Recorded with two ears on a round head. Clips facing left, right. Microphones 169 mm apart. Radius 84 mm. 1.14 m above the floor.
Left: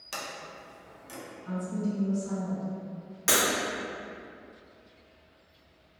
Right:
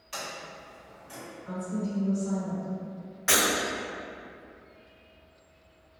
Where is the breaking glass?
60° left (ahead or behind), 1.3 m.